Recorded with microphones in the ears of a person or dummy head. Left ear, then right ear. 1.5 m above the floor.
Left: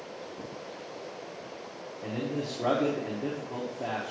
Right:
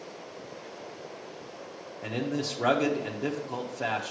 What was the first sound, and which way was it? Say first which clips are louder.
A man speaking: right 2 dB; 55° right (ahead or behind).